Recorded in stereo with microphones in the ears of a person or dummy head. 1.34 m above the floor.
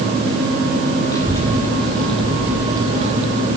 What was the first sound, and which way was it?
A child speaking, 15° left (ahead or behind).